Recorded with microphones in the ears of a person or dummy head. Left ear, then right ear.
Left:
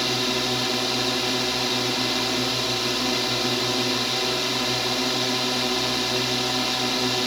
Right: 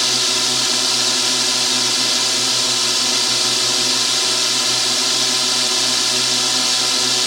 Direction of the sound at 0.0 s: 40° right (ahead or behind).